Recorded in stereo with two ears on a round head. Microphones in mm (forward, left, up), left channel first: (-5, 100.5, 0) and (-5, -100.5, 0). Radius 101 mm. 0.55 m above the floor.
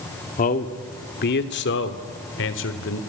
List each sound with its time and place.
0.4 s a man speaking: 35° left (ahead or behind), 1.5 m; by 3.0 s 65° left (ahead or behind), 2.5 m